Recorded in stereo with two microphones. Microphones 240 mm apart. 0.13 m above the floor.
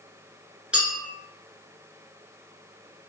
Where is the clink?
5° right (ahead or behind), 1.3 m.